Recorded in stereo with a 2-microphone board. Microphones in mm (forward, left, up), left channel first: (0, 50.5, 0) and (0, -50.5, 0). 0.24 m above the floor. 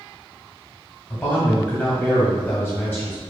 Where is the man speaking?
15° left (ahead or behind), 1.8 m; by 3.2 s 20° left (ahead or behind), 1.7 m.